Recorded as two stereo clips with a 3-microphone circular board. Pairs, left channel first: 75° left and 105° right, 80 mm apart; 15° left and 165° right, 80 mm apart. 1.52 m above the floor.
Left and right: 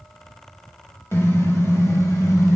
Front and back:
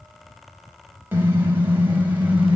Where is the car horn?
130° left, 5 m; by 2.6 s 125° left, 5 m.